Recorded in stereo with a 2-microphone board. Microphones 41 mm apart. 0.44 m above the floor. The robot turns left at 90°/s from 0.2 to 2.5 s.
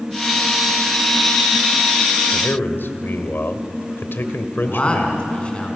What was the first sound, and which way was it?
A man speaking, 55° left (ahead or behind).